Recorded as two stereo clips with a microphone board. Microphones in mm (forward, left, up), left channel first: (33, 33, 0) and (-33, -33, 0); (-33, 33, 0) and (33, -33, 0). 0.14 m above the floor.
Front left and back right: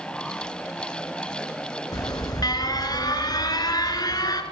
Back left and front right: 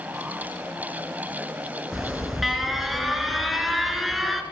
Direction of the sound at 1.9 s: 40° left.